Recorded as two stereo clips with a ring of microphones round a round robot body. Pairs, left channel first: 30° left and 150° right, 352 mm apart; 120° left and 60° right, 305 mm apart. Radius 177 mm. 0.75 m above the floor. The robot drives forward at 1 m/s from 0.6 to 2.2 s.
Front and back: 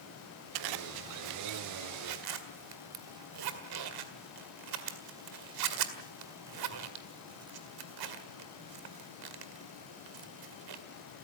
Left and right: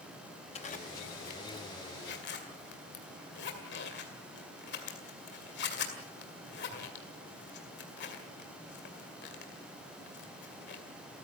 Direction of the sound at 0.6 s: 170° right.